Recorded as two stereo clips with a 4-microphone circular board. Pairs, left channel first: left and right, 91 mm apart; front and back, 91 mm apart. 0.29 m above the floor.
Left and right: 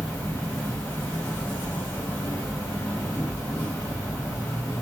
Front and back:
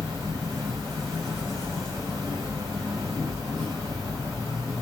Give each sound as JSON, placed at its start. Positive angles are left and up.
{"t": 0.0, "sound": "an insect", "azimuth_deg": 155, "distance_m": 1.4}